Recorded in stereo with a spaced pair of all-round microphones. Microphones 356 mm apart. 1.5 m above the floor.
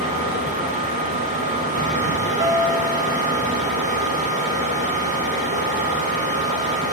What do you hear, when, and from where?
0.0 s a fan: 20° right (ahead or behind), 3.5 m
2.4 s a piano: 30° right (ahead or behind), 1.0 m